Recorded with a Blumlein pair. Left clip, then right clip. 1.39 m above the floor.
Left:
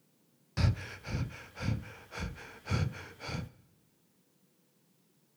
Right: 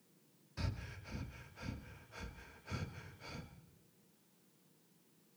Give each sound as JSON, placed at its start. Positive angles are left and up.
{"t": 0.6, "sound": "breathing", "azimuth_deg": 40, "distance_m": 0.6}